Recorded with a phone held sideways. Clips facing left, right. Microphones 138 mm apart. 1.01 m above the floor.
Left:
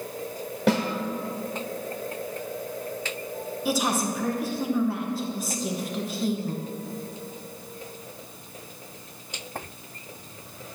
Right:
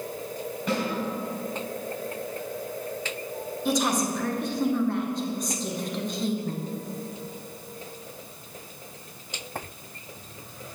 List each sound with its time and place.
0.7 s a snare drum: 80° left, 1.1 m
3.6 s a woman speaking: 5° left (ahead or behind), 0.8 m